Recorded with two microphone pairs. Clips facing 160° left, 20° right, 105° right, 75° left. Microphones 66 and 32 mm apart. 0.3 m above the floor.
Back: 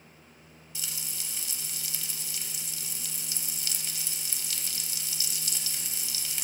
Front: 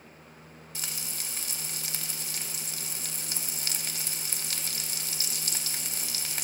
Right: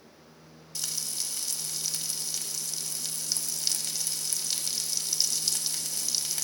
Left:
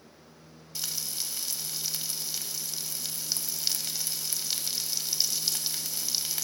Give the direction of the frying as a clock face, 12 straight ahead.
12 o'clock.